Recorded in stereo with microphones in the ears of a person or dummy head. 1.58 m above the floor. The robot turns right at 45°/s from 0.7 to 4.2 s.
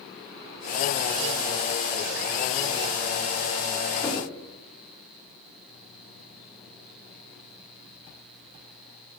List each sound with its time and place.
4.0 s knocking: 20° left (ahead or behind), 2.5 m; by 4.3 s 10° left (ahead or behind), 2.5 m